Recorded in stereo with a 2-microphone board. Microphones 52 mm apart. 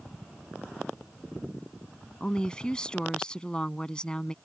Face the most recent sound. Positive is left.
turn(degrees=15)  # may be behind; listen again after turning